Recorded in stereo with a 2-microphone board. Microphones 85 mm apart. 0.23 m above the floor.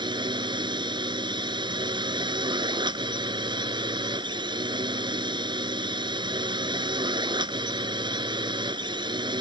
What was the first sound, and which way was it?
A drone, 65° right (ahead or behind).